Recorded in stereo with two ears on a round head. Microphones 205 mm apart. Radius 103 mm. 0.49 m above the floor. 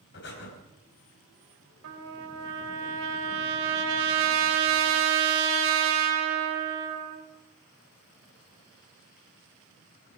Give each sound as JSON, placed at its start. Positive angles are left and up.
{"t": 0.1, "sound": "breathing", "side_deg": 55, "distance_m": 3.5}
{"t": 1.8, "sound": "a trumpet", "side_deg": -65, "distance_m": 2.5}